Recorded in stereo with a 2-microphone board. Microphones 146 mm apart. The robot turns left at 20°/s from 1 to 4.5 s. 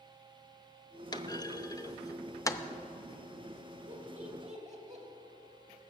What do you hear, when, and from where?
1.1 s a clunk: 30° left (ahead or behind), 0.5 m; by 2.6 s 20° left (ahead or behind), 0.5 m
3.9 s laughter: 55° right (ahead or behind), 2.5 m